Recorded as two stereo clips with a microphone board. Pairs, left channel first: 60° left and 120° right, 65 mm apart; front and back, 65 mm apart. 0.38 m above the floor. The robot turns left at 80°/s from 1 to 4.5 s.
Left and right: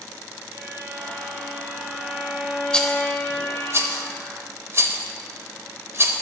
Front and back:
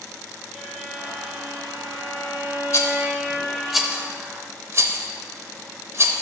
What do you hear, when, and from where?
0.5 s a violin: 85° right, 1.7 m; by 3.7 s 60° left, 1.7 m
2.7 s a rattle: 10° right, 0.8 m; by 6.1 s 150° right, 0.8 m